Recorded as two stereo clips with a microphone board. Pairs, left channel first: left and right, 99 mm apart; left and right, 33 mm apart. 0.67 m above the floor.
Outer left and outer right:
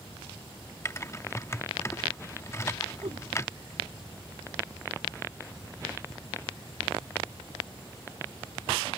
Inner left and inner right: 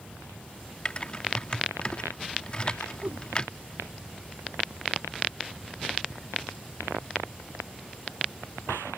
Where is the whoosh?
65° right (ahead or behind).